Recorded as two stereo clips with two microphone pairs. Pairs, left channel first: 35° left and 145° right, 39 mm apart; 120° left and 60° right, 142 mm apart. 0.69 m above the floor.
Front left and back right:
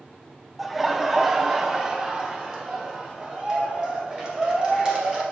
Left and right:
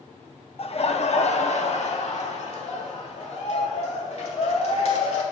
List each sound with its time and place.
0.6 s laughter: 130° left, 0.7 m; by 5.2 s 150° left, 3 m